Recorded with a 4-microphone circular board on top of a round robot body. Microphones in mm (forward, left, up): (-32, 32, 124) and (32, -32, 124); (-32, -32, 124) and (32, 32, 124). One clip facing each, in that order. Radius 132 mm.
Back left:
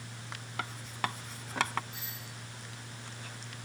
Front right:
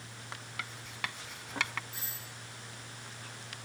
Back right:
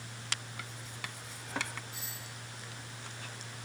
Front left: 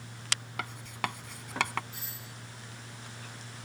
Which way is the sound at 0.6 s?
80° left.